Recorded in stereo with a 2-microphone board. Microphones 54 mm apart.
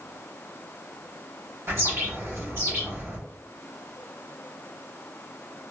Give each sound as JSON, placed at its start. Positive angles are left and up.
{"t": 1.7, "sound": "a bird", "side_deg": -55, "distance_m": 1.3}